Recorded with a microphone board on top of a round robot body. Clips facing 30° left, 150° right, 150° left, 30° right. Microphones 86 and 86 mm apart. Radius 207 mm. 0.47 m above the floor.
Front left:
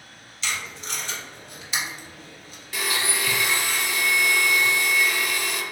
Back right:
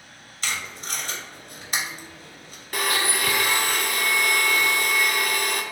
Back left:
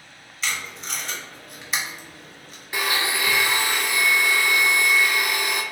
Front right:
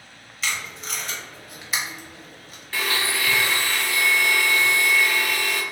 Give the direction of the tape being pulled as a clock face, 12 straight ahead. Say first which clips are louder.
Even, even; 4 o'clock.